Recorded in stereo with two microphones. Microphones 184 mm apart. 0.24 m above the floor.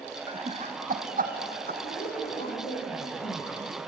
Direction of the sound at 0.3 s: 30° right (ahead or behind).